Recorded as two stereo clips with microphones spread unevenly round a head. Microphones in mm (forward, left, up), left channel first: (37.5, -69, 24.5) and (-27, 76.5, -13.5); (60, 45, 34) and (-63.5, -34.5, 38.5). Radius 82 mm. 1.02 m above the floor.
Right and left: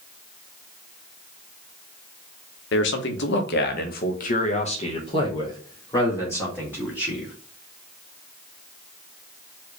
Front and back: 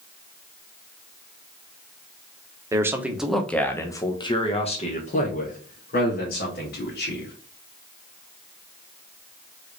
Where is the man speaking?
80° right, 1.0 m; by 7.3 s 20° left, 2.5 m.